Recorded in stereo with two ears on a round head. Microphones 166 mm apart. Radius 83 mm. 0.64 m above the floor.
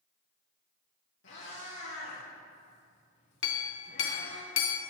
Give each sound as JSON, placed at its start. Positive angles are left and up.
{"t": 1.2, "sound": "a cat meowing", "side_deg": 70, "distance_m": 4.0}
{"t": 3.4, "sound": "a clink", "side_deg": 65, "distance_m": 0.8}